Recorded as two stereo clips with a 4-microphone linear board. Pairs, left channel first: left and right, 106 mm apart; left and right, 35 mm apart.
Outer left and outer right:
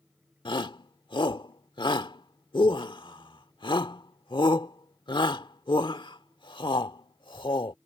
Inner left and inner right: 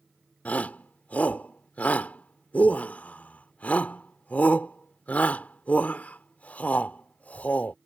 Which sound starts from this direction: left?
A shout, at 0.5 s.